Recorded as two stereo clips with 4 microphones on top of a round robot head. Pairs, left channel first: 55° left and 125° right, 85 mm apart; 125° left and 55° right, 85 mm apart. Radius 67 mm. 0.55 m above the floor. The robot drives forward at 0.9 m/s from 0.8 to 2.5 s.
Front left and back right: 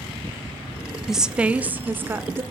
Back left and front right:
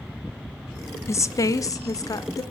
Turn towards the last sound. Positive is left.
turn(degrees=170)